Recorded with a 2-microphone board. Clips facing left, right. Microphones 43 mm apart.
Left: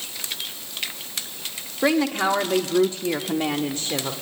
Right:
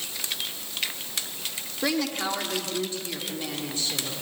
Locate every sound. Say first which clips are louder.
1.8 s a woman speaking: left 7 dB; 25° left (ahead or behind), 1.2 m; by 4.1 s 45° left (ahead or behind), 1.5 m